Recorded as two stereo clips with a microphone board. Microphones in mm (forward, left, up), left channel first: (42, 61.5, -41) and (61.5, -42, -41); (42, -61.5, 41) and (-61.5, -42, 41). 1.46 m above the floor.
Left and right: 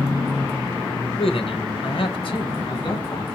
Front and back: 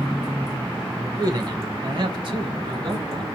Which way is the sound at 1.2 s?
120° left.